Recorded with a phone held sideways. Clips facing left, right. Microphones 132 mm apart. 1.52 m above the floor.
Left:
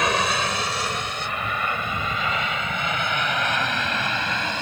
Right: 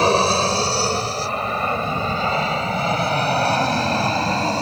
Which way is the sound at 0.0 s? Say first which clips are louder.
Right 6 dB; 30° right (ahead or behind).